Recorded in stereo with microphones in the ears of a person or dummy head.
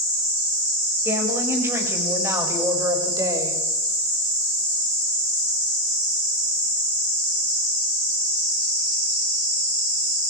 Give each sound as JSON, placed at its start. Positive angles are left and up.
{"t": 1.1, "sound": "a woman speaking", "side_deg": -10, "distance_m": 6.5}